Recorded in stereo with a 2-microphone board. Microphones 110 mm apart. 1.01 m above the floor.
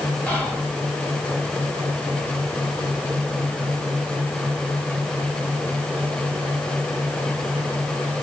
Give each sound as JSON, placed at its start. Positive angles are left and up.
{"t": 0.3, "sound": "whispering", "side_deg": 10, "distance_m": 1.8}